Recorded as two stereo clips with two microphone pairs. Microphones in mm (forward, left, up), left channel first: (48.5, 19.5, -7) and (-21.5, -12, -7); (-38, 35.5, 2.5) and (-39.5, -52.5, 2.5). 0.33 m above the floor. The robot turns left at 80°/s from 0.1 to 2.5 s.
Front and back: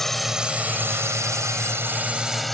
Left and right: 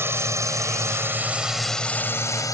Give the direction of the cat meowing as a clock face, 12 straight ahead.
No cat meowing in this recording.